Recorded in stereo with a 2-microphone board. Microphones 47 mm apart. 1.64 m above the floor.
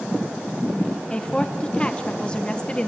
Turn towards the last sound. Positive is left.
turn(degrees=20)  # may be behind; listen again after turning